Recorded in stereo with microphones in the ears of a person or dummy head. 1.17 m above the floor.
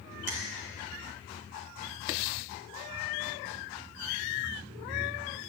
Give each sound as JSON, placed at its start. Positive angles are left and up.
{"t": 0.3, "sound": "a finger snap", "side_deg": -40, "distance_m": 0.9}